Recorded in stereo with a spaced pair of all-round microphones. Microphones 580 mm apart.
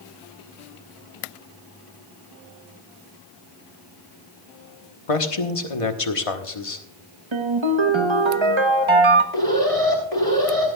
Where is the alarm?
80° left, 4 m.